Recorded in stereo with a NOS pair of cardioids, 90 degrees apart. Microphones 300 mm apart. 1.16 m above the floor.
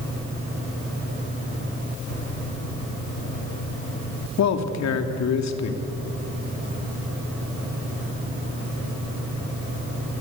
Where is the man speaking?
65° left, 3 m.